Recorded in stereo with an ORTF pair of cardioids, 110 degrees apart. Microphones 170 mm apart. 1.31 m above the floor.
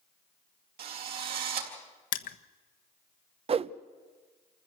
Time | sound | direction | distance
0.8 | a drill | 70° right | 4 m
2.1 | crushing | 55° left | 1.4 m
3.5 | a whoosh | 35° right | 0.8 m